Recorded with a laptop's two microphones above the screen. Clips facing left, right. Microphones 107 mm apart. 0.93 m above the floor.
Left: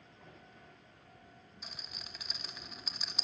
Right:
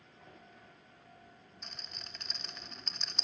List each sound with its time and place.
1.6 s a rattle: 5° left (ahead or behind), 0.9 m